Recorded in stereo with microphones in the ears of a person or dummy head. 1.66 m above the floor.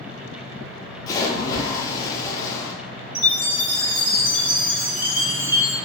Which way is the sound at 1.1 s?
20° left (ahead or behind).